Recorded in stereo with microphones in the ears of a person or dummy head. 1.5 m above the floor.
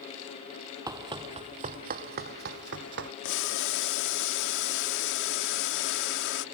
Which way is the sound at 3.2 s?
60° left (ahead or behind).